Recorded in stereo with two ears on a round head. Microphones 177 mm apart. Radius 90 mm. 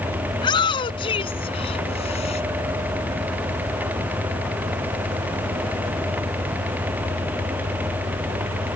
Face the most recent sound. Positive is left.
turn(degrees=30)  # may be behind; listen again after turning